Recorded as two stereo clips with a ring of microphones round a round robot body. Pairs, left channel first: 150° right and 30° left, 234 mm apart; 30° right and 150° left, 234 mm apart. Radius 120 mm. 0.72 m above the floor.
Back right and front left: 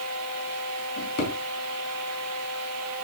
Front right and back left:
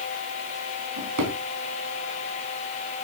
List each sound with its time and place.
1.0 s a drawer: 165° left, 4.5 m